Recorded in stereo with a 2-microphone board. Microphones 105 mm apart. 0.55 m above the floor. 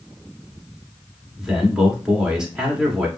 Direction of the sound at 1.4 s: 5° right (ahead or behind).